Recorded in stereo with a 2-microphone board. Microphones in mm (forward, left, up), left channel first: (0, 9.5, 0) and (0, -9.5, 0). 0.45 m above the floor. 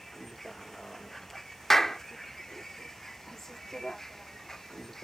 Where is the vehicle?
15° left (ahead or behind); by 5.0 s 20° left (ahead or behind).